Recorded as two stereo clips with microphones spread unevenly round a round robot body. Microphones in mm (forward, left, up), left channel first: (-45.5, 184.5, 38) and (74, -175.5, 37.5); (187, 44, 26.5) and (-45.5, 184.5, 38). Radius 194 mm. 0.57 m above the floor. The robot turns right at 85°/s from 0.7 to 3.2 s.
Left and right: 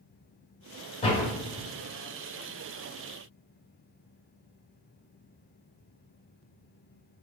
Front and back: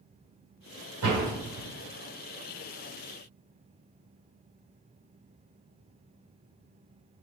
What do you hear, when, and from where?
1.0 s a door slam: straight behind, 2 m; by 1.7 s 120° right, 2 m